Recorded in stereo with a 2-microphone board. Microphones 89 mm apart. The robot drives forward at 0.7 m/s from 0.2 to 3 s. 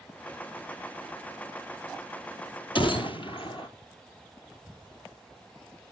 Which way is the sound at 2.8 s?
70° left (ahead or behind).